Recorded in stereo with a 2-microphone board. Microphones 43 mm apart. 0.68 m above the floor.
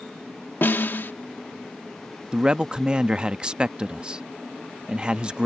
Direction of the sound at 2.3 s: 20° right (ahead or behind).